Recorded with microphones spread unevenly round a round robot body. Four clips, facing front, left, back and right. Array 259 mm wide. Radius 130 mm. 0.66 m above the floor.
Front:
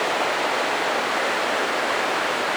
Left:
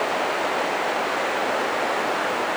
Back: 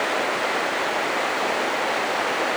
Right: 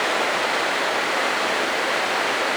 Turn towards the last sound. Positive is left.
No sound to turn to.